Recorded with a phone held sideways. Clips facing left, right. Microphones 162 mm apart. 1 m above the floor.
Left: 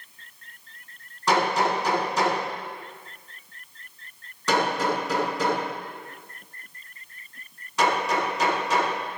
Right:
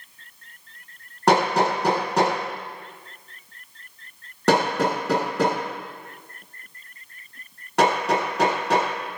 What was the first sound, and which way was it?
Hammering, 65° right (ahead or behind).